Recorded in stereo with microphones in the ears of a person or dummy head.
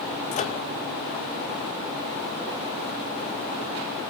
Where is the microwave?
35° left (ahead or behind), 0.6 m.